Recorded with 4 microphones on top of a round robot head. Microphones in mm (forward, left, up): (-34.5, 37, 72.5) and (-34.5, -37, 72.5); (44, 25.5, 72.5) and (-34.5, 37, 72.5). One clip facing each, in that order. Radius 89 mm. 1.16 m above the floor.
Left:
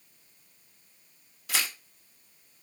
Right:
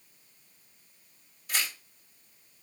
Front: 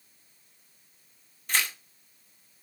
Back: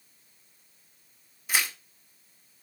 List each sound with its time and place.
1.5 s tearing paper: 90° left, 1.5 m